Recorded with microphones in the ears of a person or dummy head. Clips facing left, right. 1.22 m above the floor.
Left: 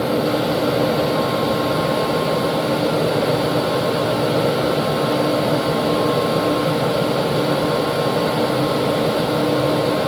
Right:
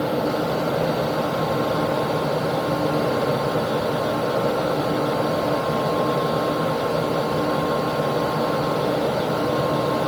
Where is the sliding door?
No sliding door in this recording.